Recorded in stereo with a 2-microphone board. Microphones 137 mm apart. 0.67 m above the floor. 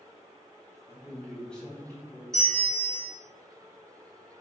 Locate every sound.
0.9 s a man speaking: 15° right (ahead or behind), 1.0 m; by 2.2 s 20° left (ahead or behind), 1.7 m
2.3 s a bell: 5° left (ahead or behind), 1.5 m